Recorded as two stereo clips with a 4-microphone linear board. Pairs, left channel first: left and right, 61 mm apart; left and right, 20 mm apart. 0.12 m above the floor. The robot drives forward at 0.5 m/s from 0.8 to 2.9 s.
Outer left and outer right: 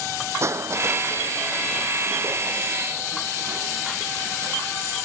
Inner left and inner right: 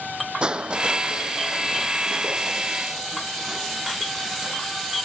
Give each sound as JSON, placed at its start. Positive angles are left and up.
{"t": 0.4, "sound": "crushing", "side_deg": -50}